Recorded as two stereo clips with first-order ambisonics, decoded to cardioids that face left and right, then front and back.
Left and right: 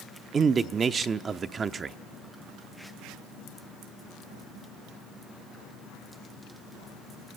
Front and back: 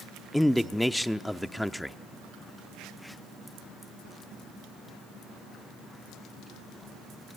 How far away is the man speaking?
About 0.7 m.